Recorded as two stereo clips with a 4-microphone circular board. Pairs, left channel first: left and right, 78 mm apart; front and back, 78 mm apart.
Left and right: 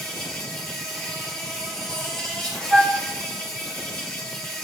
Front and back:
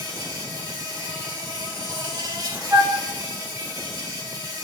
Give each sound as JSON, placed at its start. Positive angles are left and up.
{"t": 0.0, "sound": "an insect", "azimuth_deg": 170, "distance_m": 2.5}
{"t": 2.7, "sound": "a flute", "azimuth_deg": 170, "distance_m": 2.5}